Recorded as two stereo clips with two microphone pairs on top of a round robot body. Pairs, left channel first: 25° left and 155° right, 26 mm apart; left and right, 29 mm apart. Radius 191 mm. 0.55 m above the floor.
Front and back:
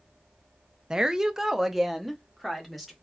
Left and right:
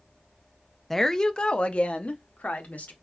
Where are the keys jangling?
No keys jangling in this recording.